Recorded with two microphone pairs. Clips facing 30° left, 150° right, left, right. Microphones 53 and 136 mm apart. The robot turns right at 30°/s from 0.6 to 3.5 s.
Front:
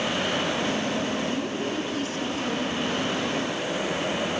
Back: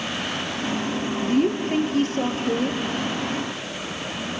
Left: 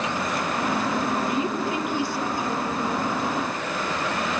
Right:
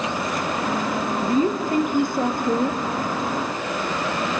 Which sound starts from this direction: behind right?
A woman speaking, at 1.2 s.